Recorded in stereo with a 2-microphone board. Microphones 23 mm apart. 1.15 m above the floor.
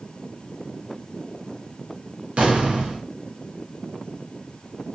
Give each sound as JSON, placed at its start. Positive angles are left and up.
{"t": 2.4, "sound": "an explosion", "side_deg": -55, "distance_m": 0.7}